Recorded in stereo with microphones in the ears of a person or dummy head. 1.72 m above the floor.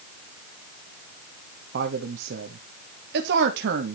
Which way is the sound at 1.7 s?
65° right (ahead or behind).